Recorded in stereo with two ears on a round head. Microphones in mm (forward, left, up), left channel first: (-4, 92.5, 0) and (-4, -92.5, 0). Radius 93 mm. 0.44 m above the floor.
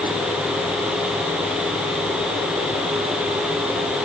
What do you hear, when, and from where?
Only background noise.